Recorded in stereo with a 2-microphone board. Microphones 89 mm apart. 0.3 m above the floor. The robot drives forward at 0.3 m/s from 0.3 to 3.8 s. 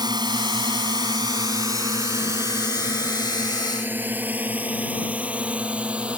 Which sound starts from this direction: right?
A drone, at 0.0 s.